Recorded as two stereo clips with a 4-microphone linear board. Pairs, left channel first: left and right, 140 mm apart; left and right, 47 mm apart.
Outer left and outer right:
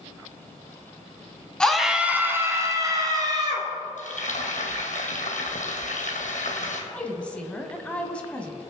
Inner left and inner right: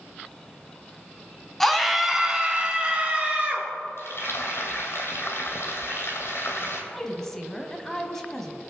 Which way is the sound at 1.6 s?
5° left (ahead or behind).